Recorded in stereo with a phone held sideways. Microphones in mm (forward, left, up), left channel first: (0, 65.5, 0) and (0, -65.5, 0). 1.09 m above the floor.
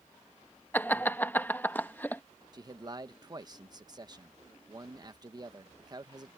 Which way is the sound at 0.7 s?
15° left (ahead or behind).